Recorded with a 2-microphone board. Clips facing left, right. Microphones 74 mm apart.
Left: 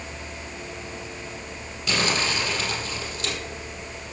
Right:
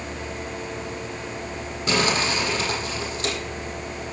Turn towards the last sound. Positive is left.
turn(degrees=-40)  # may be behind; listen again after turning